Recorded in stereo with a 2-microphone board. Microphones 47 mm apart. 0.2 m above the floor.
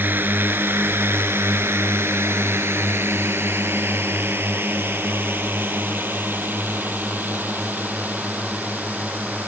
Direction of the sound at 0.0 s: 45° right (ahead or behind).